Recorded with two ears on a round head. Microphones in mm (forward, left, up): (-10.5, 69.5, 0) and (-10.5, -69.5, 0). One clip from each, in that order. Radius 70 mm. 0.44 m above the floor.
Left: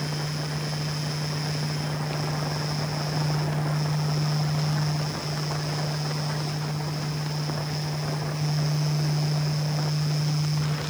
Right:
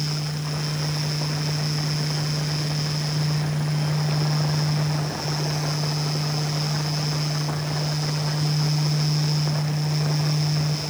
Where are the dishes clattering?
No dishes clattering in this recording.